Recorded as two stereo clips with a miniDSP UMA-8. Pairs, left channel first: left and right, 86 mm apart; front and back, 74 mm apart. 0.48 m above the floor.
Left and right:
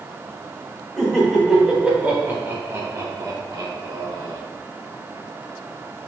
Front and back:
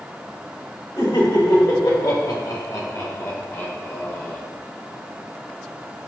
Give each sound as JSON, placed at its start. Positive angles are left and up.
{"t": 1.0, "sound": "laughter", "azimuth_deg": 5, "distance_m": 3.5}